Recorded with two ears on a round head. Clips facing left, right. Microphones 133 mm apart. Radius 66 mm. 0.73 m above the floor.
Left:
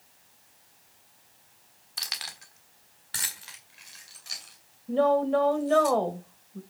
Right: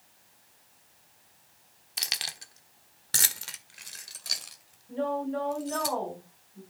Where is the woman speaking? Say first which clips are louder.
Left 8 dB; 80° left, 3 m.